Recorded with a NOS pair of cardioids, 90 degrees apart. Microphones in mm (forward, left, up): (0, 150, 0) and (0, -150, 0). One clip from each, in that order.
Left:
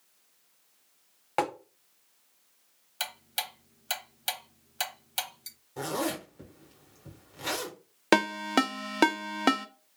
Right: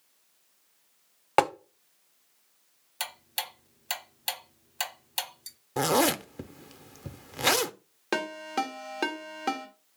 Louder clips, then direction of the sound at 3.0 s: Left 1 dB; straight ahead.